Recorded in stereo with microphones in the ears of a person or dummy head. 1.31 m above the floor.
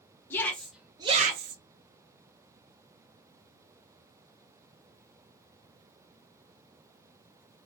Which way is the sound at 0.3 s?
15° left (ahead or behind).